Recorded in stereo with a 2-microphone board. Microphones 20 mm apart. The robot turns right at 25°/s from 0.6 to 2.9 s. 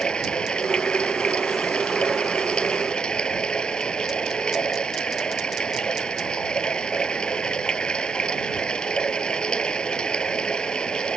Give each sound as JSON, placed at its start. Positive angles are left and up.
{"t": 0.0, "sound": "running water", "azimuth_deg": 60}